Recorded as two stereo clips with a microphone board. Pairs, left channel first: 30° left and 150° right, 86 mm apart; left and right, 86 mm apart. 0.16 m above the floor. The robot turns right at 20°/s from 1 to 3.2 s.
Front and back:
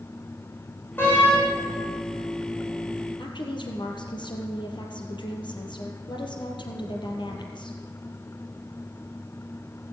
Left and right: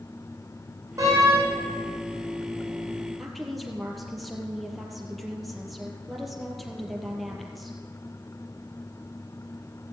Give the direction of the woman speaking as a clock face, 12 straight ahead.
12 o'clock.